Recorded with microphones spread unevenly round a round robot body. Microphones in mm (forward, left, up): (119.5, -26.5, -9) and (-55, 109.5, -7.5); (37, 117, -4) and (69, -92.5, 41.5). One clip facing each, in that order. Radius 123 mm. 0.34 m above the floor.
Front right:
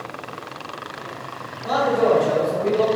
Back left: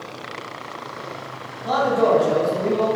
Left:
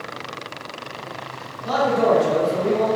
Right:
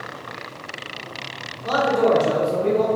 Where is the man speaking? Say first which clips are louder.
Even, even; 110° right, 1.6 m; by 2.9 s 10° right, 1.5 m.